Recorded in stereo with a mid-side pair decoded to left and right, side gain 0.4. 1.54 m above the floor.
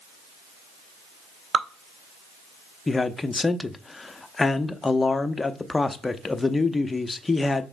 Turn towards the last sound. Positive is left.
turn(degrees=25)